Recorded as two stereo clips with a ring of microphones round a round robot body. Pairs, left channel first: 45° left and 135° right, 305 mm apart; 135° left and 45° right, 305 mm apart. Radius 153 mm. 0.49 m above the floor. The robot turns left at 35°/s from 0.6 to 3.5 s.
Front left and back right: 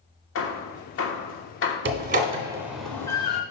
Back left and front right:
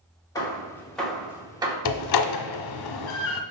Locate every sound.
0.3 s hammering: 60° left, 1.2 m; by 1.8 s 20° left, 1.2 m
1.9 s a door slam: 170° left, 0.9 m; by 3.4 s 115° left, 0.9 m